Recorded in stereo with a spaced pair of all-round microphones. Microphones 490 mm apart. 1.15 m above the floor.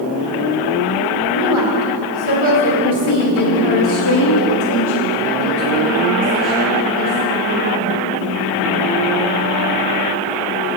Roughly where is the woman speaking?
Left.